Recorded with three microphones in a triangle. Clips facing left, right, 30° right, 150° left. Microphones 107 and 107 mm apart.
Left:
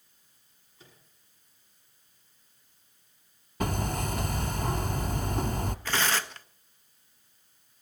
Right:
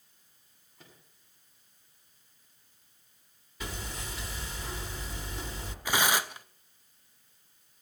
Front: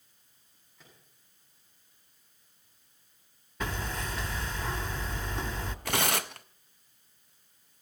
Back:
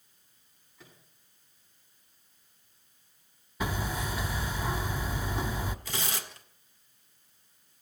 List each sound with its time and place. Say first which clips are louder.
0.8 s a microwave: even, back 3 dB; 120° right, 7.5 m
3.6 s hammering: left 10 dB, back 2 dB; 70° left, 0.9 m
5.8 s tearing paper: right 3 dB, front 7 dB; 10° right, 0.6 m